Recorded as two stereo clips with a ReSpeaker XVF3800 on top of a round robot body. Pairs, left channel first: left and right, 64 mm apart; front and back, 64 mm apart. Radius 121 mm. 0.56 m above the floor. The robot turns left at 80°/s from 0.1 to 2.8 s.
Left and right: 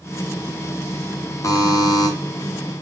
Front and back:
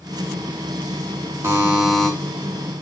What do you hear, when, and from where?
1.4 s a buzzer: 130° left, 0.8 m; by 2.1 s 75° left, 0.8 m